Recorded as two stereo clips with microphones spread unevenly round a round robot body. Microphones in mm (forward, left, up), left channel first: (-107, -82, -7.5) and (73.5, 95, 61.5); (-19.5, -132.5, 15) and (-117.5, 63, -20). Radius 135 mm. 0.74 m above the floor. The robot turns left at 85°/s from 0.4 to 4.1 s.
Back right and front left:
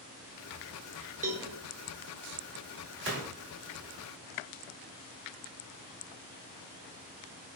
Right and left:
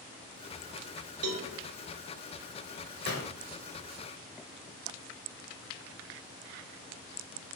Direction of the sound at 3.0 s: Straight ahead.